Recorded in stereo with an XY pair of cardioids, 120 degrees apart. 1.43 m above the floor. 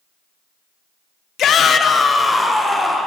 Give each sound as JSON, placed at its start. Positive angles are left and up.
{"t": 1.4, "sound": "a shout", "azimuth_deg": 60, "distance_m": 0.6}